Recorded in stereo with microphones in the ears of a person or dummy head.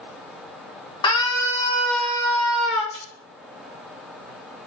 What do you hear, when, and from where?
1.0 s a scream: 20° left (ahead or behind), 2.5 m; by 2.8 s centre (ahead or behind), 3 m
2.9 s a splash: 25° left (ahead or behind), 4 m